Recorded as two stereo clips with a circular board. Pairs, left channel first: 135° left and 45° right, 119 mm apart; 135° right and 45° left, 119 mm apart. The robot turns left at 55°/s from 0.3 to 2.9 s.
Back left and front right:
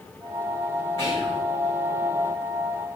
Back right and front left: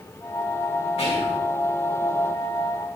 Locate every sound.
1.0 s whispering: 170° right, 4.5 m; by 1.4 s 165° left, 4.5 m